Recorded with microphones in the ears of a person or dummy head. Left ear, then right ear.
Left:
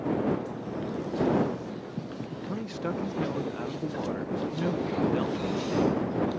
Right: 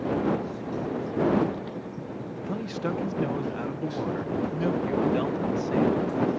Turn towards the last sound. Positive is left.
turn(degrees=0)  # may be behind; listen again after turning